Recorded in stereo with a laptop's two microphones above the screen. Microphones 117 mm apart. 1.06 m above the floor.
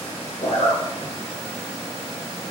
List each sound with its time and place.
0.4 s a zipper: 60° left (ahead or behind), 0.6 m